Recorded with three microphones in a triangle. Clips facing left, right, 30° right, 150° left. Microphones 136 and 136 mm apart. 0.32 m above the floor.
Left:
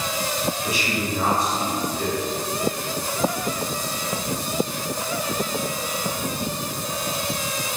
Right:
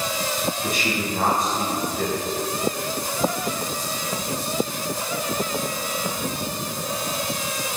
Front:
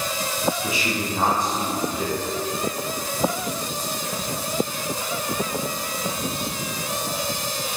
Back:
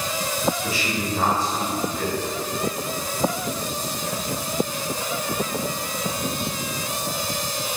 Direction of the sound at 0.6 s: 100° right.